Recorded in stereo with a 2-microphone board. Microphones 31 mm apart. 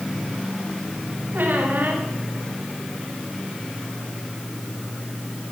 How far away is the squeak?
About 8 m.